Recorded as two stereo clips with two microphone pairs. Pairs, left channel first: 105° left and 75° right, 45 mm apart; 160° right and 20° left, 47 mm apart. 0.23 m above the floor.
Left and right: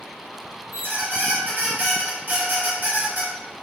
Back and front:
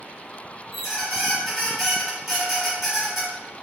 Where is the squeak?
65° right, 1.5 m.